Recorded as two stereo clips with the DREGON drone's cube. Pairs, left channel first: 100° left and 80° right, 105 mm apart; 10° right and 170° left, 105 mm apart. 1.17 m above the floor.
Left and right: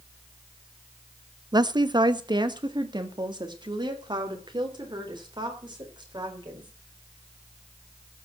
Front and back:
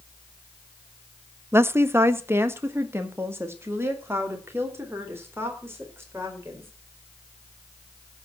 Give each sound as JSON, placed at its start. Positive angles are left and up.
{"t": 1.5, "sound": "a woman speaking", "azimuth_deg": -120, "distance_m": 0.5}